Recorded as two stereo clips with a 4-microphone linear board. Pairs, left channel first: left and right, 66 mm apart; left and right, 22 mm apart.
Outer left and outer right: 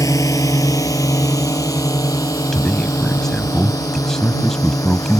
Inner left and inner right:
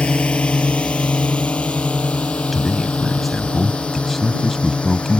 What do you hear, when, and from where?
0.0 s a drone: 60° left (ahead or behind)
2.5 s a man speaking: 5° left (ahead or behind)